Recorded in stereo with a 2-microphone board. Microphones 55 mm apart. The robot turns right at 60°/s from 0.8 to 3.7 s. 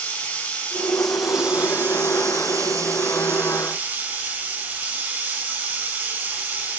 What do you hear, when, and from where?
0.0 s running water: 160° left, 8.5 m; by 6.8 s 30° right, 8.5 m